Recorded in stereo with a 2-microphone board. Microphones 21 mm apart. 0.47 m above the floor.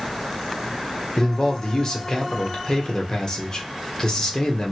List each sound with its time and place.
1.2 s a man speaking: 35° left (ahead or behind), 0.8 m